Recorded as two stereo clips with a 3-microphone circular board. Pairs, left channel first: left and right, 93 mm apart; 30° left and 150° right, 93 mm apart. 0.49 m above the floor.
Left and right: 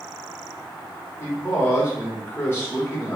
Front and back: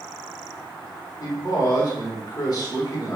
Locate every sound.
1.2 s a man speaking: 40° left, 1.0 m